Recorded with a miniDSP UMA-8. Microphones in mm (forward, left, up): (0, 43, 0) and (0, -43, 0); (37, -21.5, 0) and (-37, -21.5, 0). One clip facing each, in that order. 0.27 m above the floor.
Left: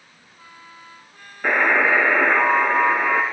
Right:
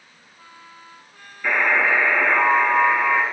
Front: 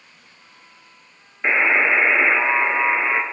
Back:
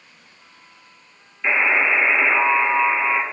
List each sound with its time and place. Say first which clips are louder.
1.4 s a buzzer: left 2 dB, front 1 dB; 55° left, 1.2 m